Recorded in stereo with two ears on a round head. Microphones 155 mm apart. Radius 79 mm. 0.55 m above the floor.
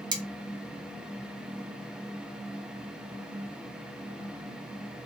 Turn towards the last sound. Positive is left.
turn(degrees=-25)  # may be behind; listen again after turning